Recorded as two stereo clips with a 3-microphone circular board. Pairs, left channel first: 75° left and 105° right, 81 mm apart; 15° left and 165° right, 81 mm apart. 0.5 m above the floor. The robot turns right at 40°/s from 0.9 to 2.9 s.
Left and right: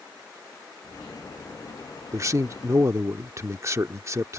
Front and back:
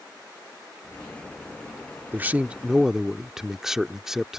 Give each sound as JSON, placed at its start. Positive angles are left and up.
{"t": 2.1, "sound": "a man speaking", "azimuth_deg": -115}